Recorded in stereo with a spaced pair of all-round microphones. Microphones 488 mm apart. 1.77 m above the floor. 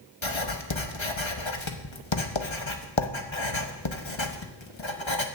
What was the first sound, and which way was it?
Writing, 65° left (ahead or behind).